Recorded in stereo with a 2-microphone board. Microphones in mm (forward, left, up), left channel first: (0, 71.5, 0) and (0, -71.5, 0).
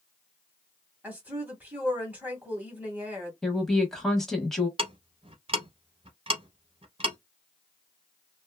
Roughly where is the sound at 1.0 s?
Centre.